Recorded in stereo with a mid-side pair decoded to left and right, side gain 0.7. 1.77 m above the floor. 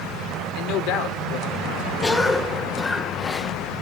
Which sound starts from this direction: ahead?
A cough, at 2.0 s.